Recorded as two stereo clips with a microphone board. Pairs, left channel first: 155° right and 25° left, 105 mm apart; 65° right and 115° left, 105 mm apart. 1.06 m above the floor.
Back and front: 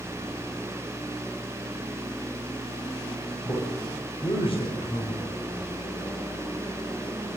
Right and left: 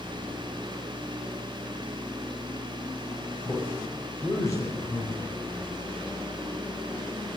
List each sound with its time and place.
3.5 s a man speaking: 130° right, 5 m